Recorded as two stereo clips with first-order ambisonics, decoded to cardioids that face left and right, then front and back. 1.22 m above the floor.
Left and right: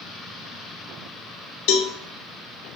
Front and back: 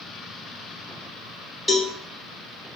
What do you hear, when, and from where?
1.7 s a cowbell: 85° left, 0.5 m